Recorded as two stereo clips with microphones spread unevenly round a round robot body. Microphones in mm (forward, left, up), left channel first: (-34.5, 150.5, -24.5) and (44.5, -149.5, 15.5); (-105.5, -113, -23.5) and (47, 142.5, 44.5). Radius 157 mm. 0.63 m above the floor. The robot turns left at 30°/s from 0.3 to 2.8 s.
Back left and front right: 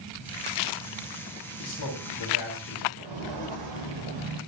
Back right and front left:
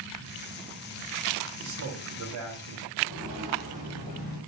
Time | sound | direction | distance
1.6 | a man speaking | 100° left | 3 m
3.0 | footsteps | 60° right | 4.5 m